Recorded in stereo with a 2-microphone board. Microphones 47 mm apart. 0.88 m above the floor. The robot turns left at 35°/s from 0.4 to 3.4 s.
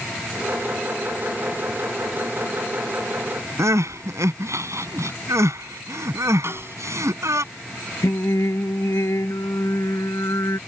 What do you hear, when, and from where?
3.6 s crying: 80° right
6.4 s a snare drum: 60° right (ahead or behind)
8.0 s singing: 85° left